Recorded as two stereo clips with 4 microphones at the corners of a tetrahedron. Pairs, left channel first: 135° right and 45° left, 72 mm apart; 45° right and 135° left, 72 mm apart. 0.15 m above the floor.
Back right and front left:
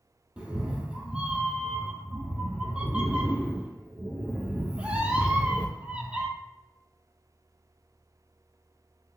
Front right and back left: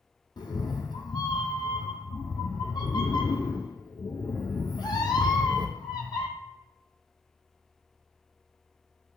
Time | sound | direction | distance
0.4 | a cat meowing | 30° right | 0.6 m